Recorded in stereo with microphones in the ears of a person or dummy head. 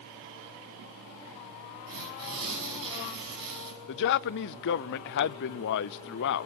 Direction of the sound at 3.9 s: 60° left (ahead or behind).